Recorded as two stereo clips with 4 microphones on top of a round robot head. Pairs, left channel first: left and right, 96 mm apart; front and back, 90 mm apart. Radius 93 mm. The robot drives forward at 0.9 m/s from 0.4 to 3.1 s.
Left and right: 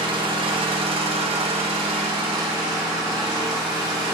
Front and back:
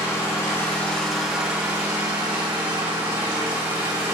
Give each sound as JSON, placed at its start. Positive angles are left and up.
{"t": 0.0, "sound": "an engine running", "azimuth_deg": -60, "distance_m": 1.5}